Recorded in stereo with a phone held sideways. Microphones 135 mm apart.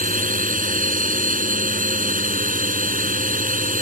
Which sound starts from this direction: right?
A drone, at 0.0 s.